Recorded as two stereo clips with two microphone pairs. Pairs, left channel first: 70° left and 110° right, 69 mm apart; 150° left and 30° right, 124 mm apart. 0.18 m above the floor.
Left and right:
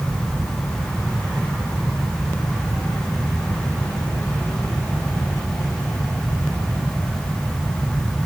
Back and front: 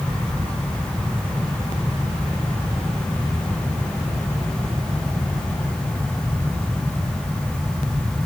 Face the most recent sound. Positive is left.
No sound to turn to.